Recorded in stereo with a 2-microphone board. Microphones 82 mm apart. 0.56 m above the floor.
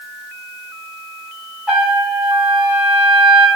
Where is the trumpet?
10° right (ahead or behind), 1.5 m.